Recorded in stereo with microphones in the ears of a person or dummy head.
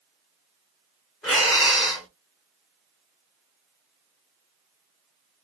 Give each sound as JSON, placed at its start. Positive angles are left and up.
{"t": 1.2, "sound": "breathing", "side_deg": 5, "distance_m": 1.1}